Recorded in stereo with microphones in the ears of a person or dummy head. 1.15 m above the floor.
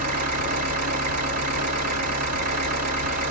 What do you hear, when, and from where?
0.0 s an engine running: 45° right (ahead or behind), 1.5 m